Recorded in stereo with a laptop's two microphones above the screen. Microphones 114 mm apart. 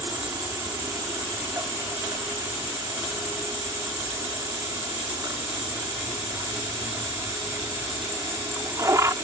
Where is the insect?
30° right (ahead or behind).